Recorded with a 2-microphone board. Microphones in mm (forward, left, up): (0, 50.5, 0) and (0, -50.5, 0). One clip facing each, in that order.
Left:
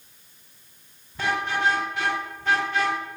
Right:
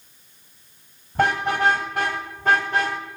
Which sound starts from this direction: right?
A car horn, at 1.1 s.